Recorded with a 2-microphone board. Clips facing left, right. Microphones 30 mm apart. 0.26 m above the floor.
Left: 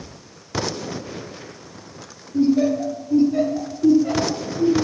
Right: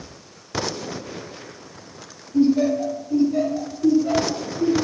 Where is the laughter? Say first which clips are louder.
Even; 20° right (ahead or behind), 1.2 m; by 4.7 s 25° left (ahead or behind), 2.5 m.